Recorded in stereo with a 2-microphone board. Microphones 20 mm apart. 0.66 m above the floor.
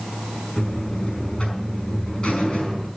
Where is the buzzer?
55° left (ahead or behind), 5 m.